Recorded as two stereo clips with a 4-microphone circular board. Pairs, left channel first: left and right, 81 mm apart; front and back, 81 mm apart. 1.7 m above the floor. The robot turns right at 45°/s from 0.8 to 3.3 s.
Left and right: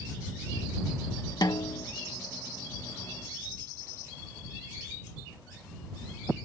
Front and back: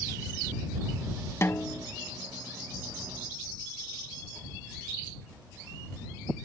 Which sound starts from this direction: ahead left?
A snare drum, at 1.4 s.